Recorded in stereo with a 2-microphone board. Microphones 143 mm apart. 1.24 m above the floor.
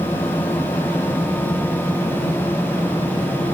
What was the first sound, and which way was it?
Only background noise.